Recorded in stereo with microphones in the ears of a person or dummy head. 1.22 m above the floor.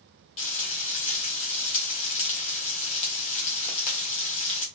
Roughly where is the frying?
Left.